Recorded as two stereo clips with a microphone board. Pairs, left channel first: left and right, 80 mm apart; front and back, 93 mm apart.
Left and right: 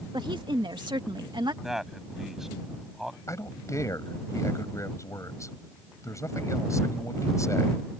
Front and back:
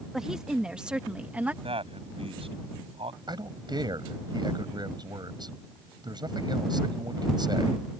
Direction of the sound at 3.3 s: 140° left.